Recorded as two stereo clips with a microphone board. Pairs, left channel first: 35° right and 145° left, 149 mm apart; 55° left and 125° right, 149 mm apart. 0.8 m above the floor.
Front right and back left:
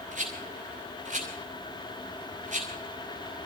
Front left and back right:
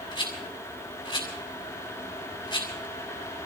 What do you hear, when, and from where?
0.1 s a rattle: 115° left, 6 m